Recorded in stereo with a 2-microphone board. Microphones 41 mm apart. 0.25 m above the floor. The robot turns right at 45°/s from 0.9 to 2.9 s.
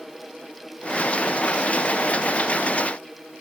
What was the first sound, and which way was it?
Only background noise.